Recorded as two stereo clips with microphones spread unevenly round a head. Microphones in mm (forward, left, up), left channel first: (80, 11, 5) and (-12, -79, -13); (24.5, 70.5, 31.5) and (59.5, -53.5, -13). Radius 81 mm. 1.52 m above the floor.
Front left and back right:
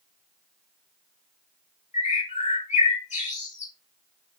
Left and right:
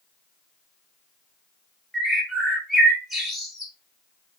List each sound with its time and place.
1.9 s a bird: 15° left, 5 m